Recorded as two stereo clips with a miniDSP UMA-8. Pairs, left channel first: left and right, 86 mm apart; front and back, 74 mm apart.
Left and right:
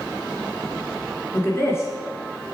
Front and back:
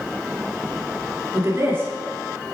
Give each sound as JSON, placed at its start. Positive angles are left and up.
{"t": 1.3, "sound": "a woman speaking", "azimuth_deg": 135, "distance_m": 2.0}